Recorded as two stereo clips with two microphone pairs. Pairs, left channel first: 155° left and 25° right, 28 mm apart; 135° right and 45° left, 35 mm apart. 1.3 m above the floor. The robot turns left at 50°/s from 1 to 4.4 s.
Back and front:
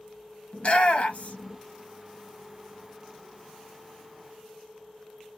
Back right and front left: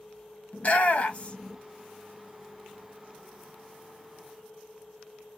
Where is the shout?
175° right, 1.0 m; by 1.6 s 155° left, 1.0 m.